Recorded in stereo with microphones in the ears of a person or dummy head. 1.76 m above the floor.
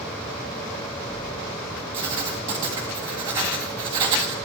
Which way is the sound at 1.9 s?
20° right (ahead or behind).